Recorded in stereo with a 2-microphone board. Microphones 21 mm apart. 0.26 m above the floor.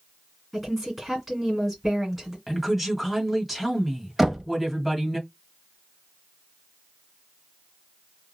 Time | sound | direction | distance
0.5 | a woman speaking | 5° right (ahead or behind) | 2 m
2.5 | a woman speaking | 15° right (ahead or behind) | 1.7 m
4.2 | knocking | 10° right (ahead or behind) | 0.8 m